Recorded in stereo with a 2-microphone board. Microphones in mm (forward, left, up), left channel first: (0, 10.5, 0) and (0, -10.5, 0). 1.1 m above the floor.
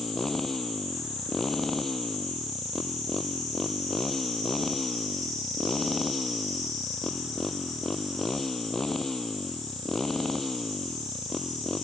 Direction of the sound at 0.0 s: 15° left (ahead or behind).